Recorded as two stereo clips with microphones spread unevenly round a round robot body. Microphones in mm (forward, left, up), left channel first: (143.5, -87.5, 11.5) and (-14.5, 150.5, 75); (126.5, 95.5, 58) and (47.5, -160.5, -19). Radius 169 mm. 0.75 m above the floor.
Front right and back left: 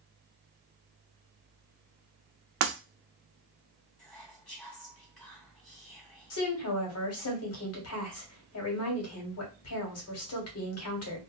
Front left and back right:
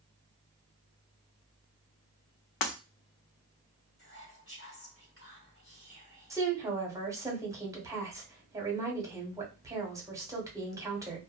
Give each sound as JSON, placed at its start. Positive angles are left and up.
{"t": 2.6, "sound": "breaking glass", "azimuth_deg": 85, "distance_m": 0.8}
{"t": 4.0, "sound": "whispering", "azimuth_deg": 25, "distance_m": 2.0}
{"t": 6.3, "sound": "a woman speaking", "azimuth_deg": -35, "distance_m": 1.3}